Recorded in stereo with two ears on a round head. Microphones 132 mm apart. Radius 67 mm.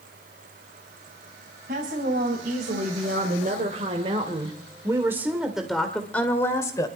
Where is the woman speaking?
70° right (ahead or behind), 3 m; by 6.9 s 25° left (ahead or behind), 2 m.